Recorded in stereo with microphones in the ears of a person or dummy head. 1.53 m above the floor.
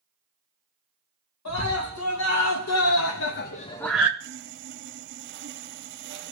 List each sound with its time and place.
1.4 s a scream: 80° left, 2 m; by 4.1 s 15° right (ahead or behind), 0.6 m
4.2 s sawing: 60° right (ahead or behind), 0.7 m